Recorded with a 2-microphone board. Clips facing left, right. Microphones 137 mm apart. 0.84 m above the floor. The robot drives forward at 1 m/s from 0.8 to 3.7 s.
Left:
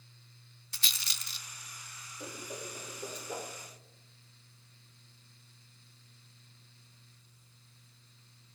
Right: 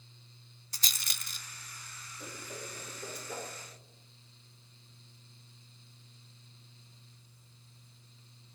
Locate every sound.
0.7 s a rattle: 40° right (ahead or behind), 0.6 m; by 3.2 s 10° right (ahead or behind), 2 m
2.2 s a whoosh: 25° left (ahead or behind), 1.3 m; by 3.5 s 15° left (ahead or behind), 2.5 m